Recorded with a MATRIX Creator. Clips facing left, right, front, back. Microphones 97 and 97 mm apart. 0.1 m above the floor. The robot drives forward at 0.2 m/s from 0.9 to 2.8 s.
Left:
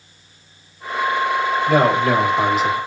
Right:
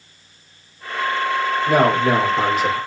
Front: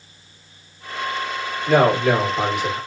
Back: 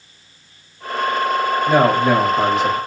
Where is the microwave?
I don't hear a microwave.